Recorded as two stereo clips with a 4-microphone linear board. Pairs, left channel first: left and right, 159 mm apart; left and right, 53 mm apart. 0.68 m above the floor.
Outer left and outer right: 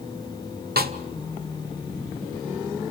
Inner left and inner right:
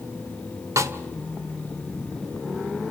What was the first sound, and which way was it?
A snare drum, 75° right (ahead or behind).